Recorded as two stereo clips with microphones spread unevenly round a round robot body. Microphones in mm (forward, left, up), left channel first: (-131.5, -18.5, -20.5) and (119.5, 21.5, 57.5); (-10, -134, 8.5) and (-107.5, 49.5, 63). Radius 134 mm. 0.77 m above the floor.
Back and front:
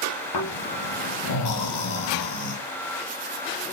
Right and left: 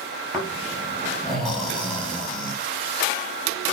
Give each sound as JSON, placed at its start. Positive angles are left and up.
{"t": 0.3, "sound": "snoring", "azimuth_deg": -150, "distance_m": 6.0}